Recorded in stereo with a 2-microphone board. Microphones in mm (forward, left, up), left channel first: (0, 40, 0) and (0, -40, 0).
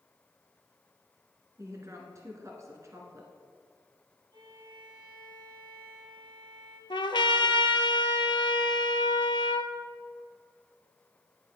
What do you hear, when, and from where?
1.6 s a woman speaking: 40° right (ahead or behind), 1.7 m
4.3 s a violin: 70° right (ahead or behind), 2 m
6.9 s a trumpet: 75° left (ahead or behind), 0.6 m